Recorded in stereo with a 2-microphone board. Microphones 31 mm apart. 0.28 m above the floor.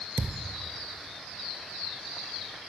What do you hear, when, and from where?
0.2 s a thud: 75° right (ahead or behind), 0.6 m